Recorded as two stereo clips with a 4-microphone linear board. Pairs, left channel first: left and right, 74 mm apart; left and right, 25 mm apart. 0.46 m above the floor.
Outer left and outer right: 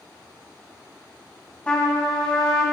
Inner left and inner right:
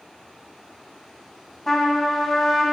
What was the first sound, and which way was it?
A trumpet, 10° left (ahead or behind).